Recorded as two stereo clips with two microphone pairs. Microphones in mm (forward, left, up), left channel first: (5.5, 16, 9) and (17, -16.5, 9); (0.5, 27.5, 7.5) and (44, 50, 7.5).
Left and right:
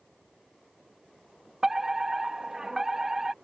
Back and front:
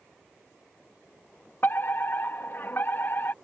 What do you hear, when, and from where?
1.6 s a fire alarm: 140° right